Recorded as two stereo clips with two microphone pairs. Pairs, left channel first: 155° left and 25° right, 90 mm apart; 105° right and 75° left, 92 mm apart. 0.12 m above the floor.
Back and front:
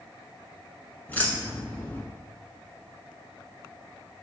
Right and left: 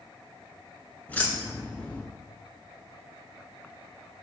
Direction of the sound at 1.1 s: 155° right.